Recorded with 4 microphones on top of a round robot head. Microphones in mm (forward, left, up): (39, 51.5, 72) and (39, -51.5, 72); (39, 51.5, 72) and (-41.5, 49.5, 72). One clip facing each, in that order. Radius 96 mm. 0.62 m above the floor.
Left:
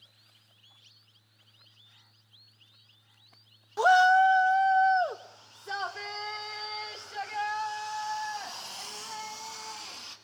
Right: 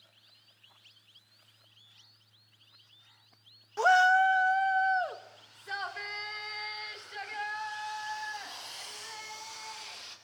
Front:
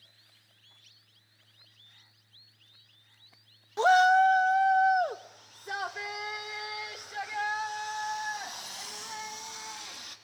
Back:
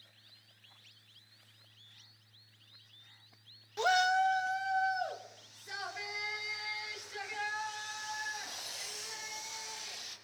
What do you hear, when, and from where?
3.8 s a shout: 20° left, 0.7 m; by 10.1 s 35° left, 6.5 m